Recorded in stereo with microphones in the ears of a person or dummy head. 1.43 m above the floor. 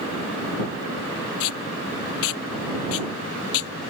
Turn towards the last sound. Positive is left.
turn(degrees=85)